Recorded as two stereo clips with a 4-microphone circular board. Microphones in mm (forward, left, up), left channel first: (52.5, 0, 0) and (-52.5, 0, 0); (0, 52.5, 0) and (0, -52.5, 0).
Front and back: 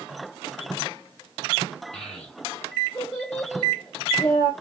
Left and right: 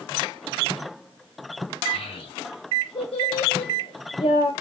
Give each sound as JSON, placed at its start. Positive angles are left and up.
{"t": 1.9, "sound": "a child speaking", "azimuth_deg": 85, "distance_m": 3.5}